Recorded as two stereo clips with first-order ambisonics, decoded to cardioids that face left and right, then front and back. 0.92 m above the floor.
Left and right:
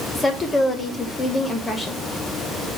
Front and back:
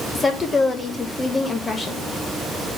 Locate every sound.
0.1 s a woman speaking: 50° left, 0.9 m